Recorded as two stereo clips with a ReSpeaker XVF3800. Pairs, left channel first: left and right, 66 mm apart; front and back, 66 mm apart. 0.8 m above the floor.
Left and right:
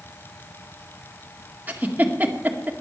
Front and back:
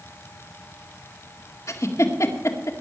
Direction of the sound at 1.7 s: 30° right.